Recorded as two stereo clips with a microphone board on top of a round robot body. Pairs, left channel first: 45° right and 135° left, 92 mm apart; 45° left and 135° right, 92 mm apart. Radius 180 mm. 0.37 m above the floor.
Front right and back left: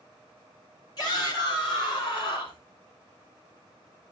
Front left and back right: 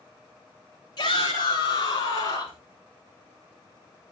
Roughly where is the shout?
Ahead.